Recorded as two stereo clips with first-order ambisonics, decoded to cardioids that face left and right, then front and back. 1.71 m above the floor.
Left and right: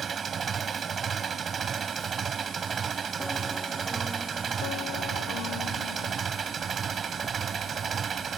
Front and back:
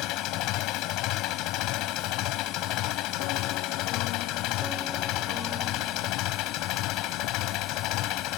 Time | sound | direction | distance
0.0 | an engine running | 30° right | ?